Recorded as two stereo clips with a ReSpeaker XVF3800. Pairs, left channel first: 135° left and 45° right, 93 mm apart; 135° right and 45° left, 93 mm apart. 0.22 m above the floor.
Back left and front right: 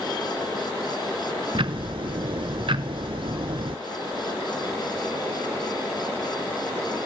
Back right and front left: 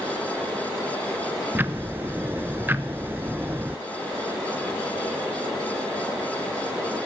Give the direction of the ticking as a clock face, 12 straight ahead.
1 o'clock.